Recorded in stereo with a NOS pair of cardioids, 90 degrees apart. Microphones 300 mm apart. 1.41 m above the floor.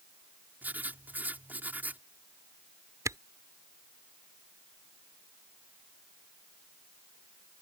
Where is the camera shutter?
10° right.